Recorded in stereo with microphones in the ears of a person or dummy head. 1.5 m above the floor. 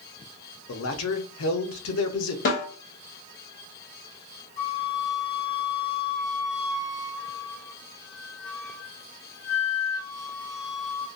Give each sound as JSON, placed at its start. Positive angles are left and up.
{"t": 0.7, "sound": "a man speaking", "side_deg": 65, "distance_m": 0.6}
{"t": 2.5, "sound": "a snare drum", "side_deg": 50, "distance_m": 1.0}
{"t": 4.6, "sound": "a flute", "side_deg": 50, "distance_m": 1.5}